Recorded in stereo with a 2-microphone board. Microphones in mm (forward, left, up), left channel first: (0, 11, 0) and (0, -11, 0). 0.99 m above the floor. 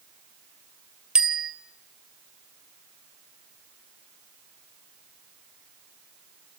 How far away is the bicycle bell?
About 3 m.